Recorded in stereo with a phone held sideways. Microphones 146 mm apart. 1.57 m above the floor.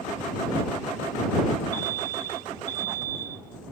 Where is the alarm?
65° left (ahead or behind).